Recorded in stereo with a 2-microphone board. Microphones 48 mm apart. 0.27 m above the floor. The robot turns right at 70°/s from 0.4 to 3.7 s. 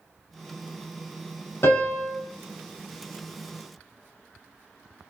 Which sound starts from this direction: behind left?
A piano, at 1.6 s.